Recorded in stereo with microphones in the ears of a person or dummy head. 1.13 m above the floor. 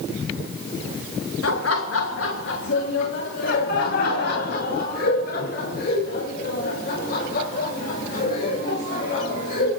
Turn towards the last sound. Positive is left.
turn(degrees=50)  # may be behind; listen again after turning